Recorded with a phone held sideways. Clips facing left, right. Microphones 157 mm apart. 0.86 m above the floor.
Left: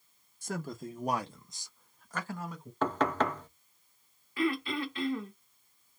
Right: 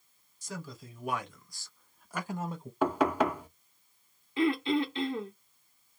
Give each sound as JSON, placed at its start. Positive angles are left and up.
{"t": 0.4, "sound": "a man speaking", "side_deg": 55, "distance_m": 1.1}
{"t": 2.8, "sound": "knocking", "side_deg": -10, "distance_m": 0.6}
{"t": 4.4, "sound": "throat clearing", "side_deg": -25, "distance_m": 1.0}